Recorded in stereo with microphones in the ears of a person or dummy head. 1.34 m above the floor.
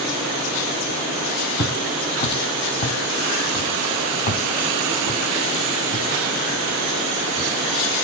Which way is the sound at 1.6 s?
25° left (ahead or behind).